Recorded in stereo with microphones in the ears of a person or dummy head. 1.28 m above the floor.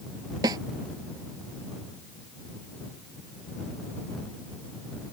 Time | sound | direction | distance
0.4 | a snare drum | 20° right (ahead or behind) | ?